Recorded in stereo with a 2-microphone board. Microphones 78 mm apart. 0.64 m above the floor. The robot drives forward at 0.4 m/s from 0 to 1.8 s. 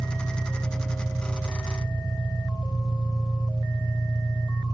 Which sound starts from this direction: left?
An engine running, at 0.0 s.